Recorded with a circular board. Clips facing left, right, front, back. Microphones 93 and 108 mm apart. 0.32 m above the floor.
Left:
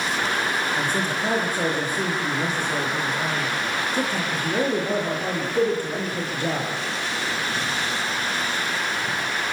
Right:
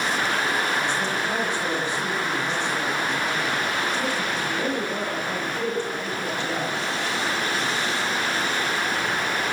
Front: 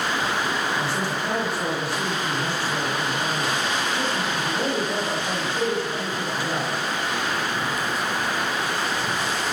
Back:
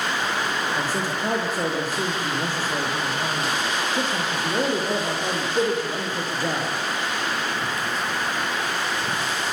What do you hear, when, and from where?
0.8 s a man speaking: 135° left, 10 m